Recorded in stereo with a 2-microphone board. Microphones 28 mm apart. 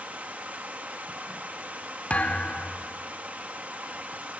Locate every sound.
0.0 s running water: 75° right (ahead or behind), 1.4 m
2.1 s a thud: 65° left (ahead or behind), 1.3 m